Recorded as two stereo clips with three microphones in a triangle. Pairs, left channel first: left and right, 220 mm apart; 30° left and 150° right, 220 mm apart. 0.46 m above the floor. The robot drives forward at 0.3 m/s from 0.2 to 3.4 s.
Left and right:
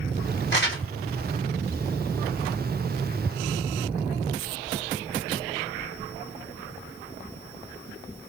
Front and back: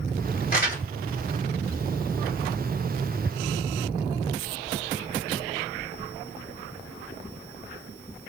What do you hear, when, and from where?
0.5 s crumpling: 70° left, 2.5 m; by 0.8 s 75° left, 2.5 m